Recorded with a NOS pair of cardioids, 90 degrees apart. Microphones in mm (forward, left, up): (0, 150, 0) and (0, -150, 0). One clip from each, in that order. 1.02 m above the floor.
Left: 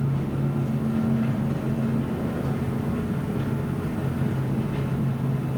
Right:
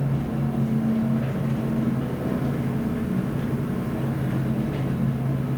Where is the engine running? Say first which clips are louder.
Right 1 dB; 45° right, 1.3 m.